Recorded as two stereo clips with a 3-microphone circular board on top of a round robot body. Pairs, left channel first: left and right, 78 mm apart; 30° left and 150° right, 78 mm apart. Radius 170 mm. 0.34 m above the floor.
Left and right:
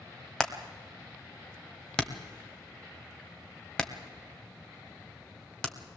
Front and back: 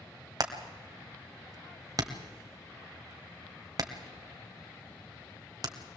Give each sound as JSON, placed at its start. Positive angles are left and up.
{"t": 0.4, "sound": "hammering", "azimuth_deg": 170, "distance_m": 1.8}